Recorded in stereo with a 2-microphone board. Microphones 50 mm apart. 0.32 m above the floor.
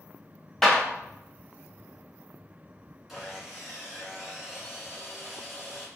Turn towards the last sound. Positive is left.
turn(degrees=-5)  # may be behind; listen again after turning